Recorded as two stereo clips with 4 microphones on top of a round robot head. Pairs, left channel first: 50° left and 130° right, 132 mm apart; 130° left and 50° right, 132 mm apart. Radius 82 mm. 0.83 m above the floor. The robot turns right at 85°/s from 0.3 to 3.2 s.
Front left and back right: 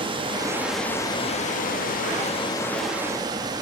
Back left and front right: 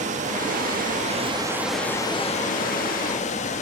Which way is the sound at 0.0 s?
80° right.